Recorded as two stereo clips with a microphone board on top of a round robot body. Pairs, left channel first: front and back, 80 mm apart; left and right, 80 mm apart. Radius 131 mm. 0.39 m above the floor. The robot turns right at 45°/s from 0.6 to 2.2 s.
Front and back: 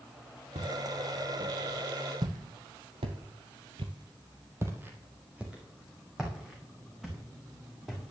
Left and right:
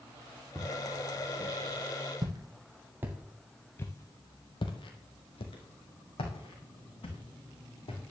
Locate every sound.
0.6 s footsteps: 170° left, 2.5 m; by 8.0 s 90° left, 3.5 m